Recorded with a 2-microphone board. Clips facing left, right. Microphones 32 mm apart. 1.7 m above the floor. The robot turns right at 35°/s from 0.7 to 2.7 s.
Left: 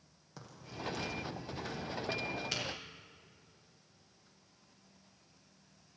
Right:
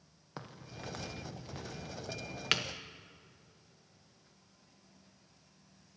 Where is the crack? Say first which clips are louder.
Left 1 dB; 35° right (ahead or behind), 1.1 m; by 2.6 s 70° right (ahead or behind), 1.1 m.